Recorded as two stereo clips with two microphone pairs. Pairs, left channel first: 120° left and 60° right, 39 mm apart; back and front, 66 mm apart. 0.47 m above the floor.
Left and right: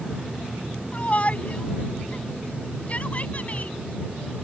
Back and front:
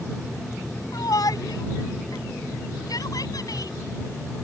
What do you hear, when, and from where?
0.9 s a shout: 170° left